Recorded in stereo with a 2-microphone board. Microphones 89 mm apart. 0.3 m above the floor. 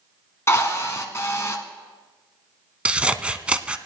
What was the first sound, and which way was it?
A drill, 35° left (ahead or behind).